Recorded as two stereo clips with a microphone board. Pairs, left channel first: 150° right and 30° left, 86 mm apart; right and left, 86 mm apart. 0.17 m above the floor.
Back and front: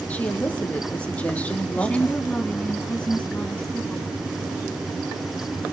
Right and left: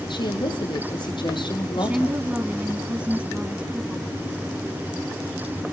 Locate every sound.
0.1 s a woman speaking: 75° right, 5 m
1.8 s a woman speaking: 150° left, 1.2 m